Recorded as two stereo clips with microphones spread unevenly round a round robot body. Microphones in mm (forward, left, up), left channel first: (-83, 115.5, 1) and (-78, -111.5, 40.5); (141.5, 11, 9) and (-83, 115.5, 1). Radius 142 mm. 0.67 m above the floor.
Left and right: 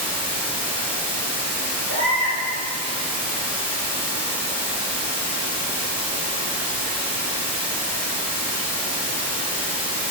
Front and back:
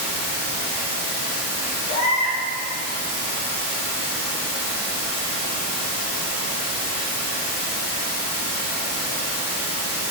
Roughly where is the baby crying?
Ahead right.